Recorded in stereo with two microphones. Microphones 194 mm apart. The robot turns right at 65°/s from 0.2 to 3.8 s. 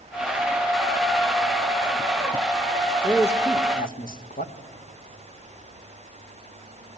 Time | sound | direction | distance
3.0 | a man speaking | centre (ahead or behind) | 0.8 m